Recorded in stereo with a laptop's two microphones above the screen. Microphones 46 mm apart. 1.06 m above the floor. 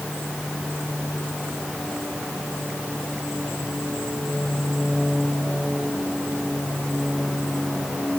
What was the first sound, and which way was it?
Only background noise.